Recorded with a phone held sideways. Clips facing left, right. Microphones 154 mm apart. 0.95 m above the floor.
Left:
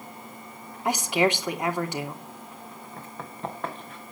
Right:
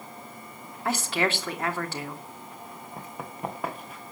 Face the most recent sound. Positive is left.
turn(degrees=-5)  # may be behind; listen again after turning